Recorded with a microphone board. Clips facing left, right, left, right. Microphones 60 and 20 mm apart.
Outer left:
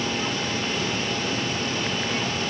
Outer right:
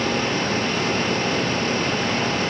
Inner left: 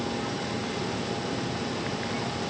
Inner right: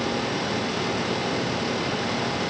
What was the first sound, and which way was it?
Only background noise.